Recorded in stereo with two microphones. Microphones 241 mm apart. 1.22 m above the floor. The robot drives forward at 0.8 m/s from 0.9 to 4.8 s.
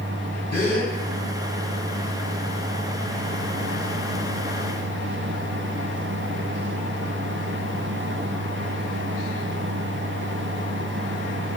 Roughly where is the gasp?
Left.